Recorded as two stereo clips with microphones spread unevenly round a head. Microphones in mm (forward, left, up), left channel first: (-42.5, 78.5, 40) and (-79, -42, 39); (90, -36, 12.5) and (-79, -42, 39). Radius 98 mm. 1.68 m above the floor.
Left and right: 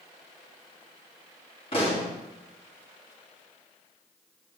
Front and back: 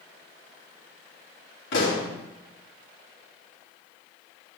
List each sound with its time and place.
1.7 s a pop: 15° left, 3.5 m